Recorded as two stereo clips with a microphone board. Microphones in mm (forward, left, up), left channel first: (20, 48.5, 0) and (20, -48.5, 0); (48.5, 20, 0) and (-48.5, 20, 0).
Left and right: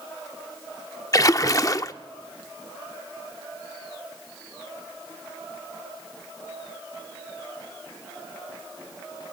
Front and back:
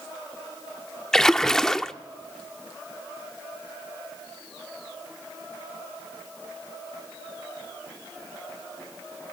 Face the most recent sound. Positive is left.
turn(degrees=80)